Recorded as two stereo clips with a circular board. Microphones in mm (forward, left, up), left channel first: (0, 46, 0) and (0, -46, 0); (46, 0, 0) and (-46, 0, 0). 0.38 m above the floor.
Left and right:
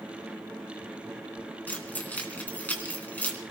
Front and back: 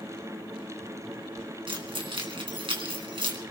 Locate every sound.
1.7 s keys jangling: 160° left, 3 m